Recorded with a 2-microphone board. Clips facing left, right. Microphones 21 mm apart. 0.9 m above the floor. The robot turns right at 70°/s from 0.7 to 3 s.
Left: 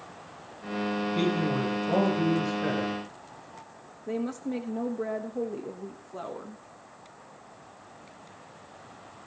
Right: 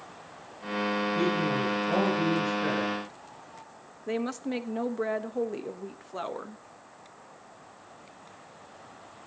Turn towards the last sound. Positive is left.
turn(degrees=-50)  # may be behind; listen again after turning